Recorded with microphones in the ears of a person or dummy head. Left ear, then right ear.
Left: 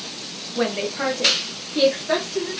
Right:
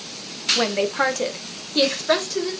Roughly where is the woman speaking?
Right.